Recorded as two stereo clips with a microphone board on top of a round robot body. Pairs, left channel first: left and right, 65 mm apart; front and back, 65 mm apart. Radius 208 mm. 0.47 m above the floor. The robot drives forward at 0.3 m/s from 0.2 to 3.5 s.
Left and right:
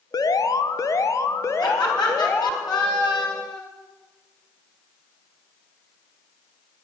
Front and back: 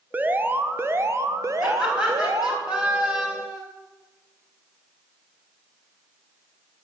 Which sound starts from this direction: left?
Laughter, at 1.6 s.